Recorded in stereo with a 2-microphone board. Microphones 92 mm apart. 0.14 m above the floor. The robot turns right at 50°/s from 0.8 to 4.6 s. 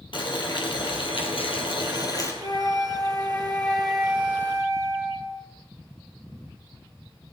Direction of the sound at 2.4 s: 105° left.